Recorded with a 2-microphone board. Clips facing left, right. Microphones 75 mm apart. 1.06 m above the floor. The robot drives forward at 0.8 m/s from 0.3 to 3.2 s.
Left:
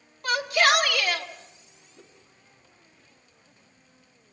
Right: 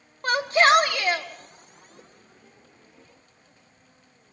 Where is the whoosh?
20° right (ahead or behind), 1.9 m.